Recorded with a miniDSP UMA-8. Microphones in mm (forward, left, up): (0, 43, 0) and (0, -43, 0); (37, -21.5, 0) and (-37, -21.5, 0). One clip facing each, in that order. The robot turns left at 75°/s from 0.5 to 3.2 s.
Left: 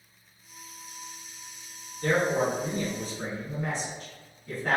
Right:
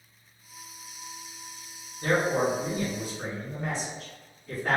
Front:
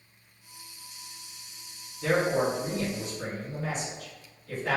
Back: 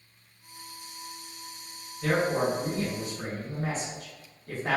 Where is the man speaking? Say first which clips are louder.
Even, front 1 dB; 90° right, 1.4 m; by 4.8 s straight behind, 1.4 m.